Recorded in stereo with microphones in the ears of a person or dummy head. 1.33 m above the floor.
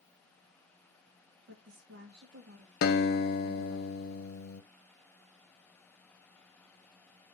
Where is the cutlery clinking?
I don't hear cutlery clinking.